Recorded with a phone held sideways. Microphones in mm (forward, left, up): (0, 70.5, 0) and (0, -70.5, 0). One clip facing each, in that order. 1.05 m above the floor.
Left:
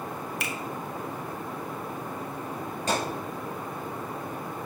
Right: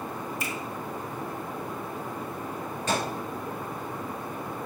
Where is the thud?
35° left (ahead or behind), 4.5 m.